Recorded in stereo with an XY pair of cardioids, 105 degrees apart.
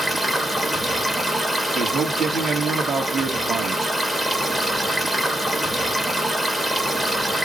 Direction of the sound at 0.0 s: 5° right.